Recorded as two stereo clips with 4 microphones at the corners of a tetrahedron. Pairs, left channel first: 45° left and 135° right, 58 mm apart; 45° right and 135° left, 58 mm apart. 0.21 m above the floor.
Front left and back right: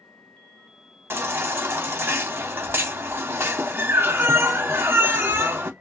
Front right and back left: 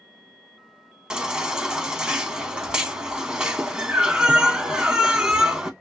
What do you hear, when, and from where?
1.1 s a baby crying: 155° right, 0.5 m